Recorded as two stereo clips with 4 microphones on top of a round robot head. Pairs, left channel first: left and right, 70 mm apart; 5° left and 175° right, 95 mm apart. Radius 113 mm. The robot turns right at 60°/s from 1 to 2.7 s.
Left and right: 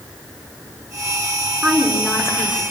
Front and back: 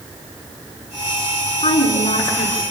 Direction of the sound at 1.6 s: 5° right.